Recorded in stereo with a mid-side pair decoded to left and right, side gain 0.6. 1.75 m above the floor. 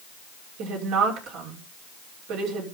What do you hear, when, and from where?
0.6 s a woman speaking: 70° right, 5.5 m